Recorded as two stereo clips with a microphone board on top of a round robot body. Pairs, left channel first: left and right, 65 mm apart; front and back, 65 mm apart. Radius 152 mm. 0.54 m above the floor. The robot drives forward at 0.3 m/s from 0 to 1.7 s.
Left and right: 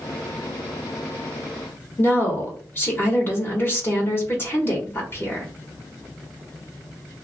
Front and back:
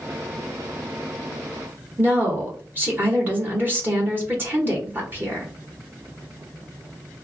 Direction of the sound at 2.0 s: 135° left.